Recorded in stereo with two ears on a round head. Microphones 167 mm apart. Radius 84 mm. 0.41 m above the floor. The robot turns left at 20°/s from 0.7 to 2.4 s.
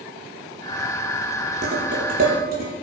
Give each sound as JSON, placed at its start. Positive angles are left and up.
{"t": 1.6, "sound": "dishes clattering", "side_deg": -35, "distance_m": 7.5}